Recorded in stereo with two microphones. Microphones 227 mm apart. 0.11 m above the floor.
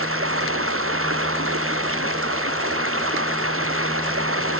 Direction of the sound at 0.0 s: 85° right.